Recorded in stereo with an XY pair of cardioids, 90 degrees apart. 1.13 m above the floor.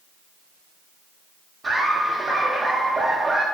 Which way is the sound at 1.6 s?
35° right.